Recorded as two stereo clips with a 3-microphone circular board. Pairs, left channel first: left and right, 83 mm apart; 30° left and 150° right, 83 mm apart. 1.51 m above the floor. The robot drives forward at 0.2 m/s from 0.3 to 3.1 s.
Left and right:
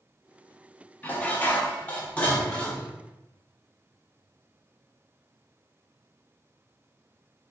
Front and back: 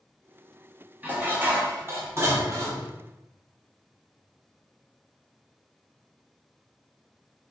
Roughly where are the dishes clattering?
Behind left.